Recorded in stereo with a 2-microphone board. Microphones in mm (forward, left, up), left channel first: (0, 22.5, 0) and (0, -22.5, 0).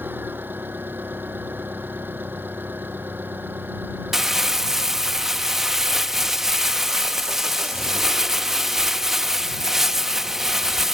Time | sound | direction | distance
0.0 | an engine running | 50° right (ahead or behind) | ?
4.1 | crumpling | 10° right (ahead or behind) | ?